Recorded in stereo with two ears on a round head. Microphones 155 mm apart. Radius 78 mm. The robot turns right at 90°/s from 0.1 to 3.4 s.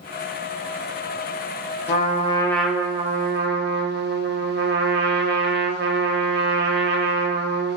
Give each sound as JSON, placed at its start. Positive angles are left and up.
{"t": 1.9, "sound": "a trumpet", "azimuth_deg": 115, "distance_m": 0.5}